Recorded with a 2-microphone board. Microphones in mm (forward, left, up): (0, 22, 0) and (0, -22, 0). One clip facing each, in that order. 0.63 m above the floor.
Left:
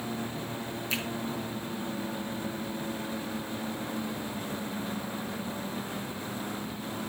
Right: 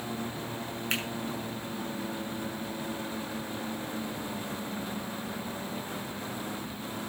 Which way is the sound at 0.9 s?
45° right (ahead or behind).